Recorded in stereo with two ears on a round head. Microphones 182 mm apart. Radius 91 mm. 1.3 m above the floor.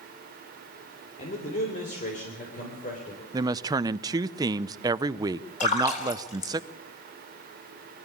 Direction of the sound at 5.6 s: 35° left (ahead or behind).